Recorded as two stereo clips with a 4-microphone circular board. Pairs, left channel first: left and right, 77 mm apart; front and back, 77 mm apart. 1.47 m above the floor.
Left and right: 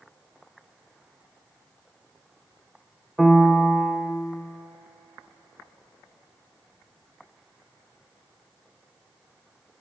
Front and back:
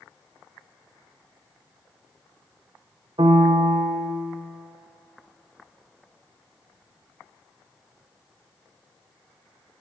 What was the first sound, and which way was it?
A piano, straight behind.